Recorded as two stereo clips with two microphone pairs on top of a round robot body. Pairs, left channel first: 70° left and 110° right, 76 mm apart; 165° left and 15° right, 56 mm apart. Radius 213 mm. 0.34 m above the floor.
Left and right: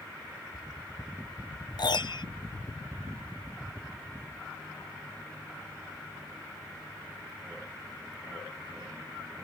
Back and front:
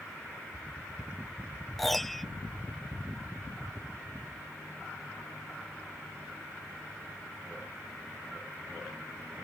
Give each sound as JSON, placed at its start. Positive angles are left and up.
{"t": 1.8, "sound": "a piano", "azimuth_deg": 75}